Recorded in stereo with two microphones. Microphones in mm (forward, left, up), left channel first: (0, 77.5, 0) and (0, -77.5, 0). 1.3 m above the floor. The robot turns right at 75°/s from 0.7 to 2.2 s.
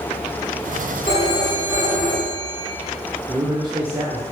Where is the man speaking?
25° right (ahead or behind), 0.7 m.